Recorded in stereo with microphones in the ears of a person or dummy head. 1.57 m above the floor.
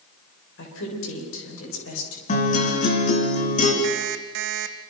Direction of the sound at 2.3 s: 40° left (ahead or behind).